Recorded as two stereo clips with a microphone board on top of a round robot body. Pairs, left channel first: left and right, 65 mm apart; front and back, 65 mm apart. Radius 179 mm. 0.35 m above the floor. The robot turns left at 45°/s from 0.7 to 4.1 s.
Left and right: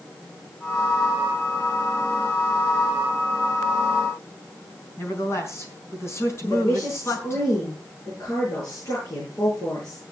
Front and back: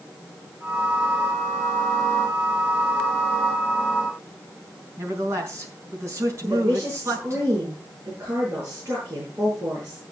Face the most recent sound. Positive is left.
turn(degrees=125)